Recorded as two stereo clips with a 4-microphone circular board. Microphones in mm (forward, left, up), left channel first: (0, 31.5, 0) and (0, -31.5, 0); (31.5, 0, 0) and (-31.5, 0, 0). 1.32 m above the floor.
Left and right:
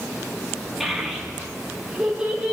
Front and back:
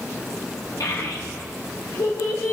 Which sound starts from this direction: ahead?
A child speaking, at 0.8 s.